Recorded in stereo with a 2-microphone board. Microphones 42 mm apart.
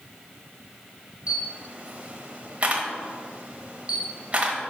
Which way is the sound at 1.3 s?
30° right (ahead or behind).